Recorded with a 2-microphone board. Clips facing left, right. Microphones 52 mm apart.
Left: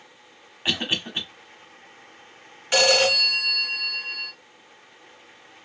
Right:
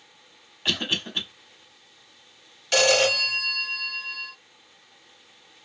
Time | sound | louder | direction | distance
0.7 | a cough | left 1 dB | 20° left (ahead or behind) | 1.2 m
2.7 | a phone ringing | left 1 dB | 20° left (ahead or behind) | 1.5 m